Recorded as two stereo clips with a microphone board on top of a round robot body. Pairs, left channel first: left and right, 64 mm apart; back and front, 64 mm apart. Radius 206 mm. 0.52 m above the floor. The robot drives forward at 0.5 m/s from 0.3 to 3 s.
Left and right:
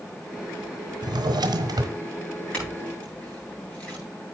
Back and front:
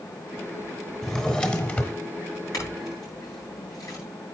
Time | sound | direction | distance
1.0 | a drawer | 95° right | 1.0 m
2.5 | a clink | 160° left | 8 m